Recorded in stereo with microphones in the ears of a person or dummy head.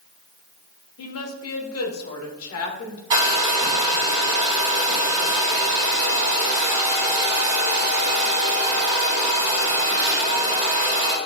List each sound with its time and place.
1.0 s a woman speaking: 70° left (ahead or behind), 1.2 m
3.1 s a hair dryer: 35° right (ahead or behind), 1.9 m